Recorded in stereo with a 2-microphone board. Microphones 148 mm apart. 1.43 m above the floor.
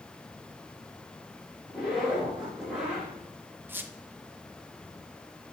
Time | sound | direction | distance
1.7 | a zipper | 5° right (ahead or behind) | 3 m
3.7 | a squeak | 15° right (ahead or behind) | 0.6 m